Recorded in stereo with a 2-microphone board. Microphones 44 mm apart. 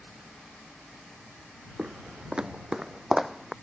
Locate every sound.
1.8 s footsteps: 25° right (ahead or behind); by 3.5 s centre (ahead or behind)